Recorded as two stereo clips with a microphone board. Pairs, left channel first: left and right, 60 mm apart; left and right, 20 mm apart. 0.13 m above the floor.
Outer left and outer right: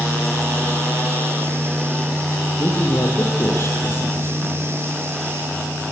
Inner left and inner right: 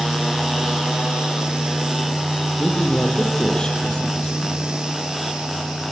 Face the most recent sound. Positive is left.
turn(degrees=45)  # may be behind; listen again after turning